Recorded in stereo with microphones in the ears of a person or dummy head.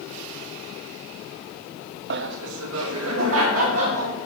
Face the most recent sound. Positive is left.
turn(degrees=-85)